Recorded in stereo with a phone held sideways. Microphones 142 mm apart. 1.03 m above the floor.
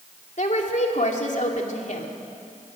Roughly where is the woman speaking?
Left.